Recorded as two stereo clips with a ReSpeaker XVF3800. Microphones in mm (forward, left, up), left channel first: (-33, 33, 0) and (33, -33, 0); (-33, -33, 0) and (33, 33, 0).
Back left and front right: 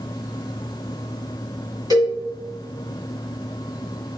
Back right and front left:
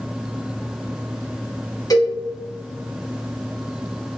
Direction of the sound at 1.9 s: 85° right.